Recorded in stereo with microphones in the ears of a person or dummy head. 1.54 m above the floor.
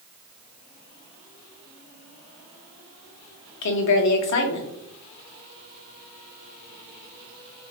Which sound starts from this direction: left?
A woman speaking, at 3.6 s.